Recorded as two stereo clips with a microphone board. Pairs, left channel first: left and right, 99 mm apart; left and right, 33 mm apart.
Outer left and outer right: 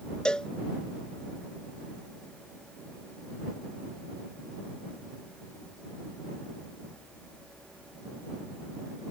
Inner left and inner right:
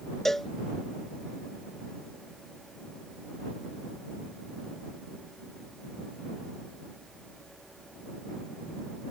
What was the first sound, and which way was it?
A cowbell, 10° left (ahead or behind).